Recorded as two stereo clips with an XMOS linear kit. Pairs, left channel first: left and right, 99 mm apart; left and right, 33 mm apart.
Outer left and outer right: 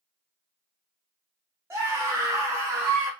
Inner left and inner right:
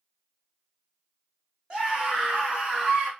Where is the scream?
25° right (ahead or behind), 1.0 m.